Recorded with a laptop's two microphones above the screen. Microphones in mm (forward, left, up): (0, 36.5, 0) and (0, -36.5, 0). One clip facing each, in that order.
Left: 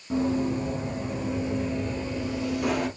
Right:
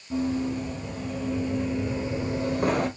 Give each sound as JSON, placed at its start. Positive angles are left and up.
{"t": 0.1, "sound": "running footsteps", "side_deg": 40, "distance_m": 2.0}